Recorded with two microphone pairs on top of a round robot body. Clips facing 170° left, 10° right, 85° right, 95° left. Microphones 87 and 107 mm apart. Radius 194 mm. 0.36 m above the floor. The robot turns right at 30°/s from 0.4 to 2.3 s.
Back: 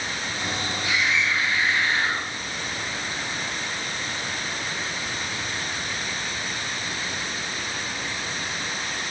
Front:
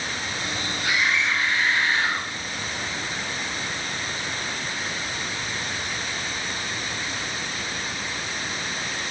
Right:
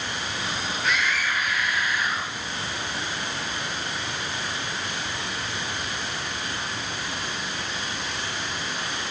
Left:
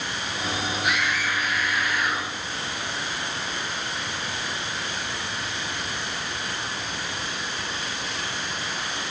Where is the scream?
20° left, 8 m; by 2.3 s 65° left, 8 m.